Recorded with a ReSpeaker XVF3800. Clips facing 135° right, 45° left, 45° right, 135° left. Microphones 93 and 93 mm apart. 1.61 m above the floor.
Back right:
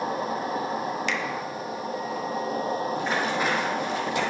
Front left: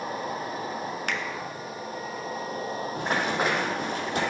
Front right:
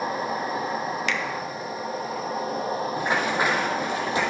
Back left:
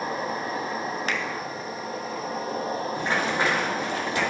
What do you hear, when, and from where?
0.0 s an insect: 125° right, 1.6 m
1.1 s a finger snap: 85° left, 0.8 m
3.0 s running footsteps: 30° left, 4 m; by 4.2 s 20° left, 3.5 m